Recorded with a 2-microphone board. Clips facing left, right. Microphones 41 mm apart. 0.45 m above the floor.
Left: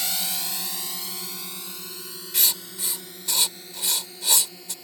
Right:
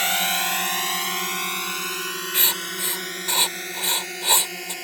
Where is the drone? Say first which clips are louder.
Right 9 dB; 55° right (ahead or behind); by 4.8 s 80° right.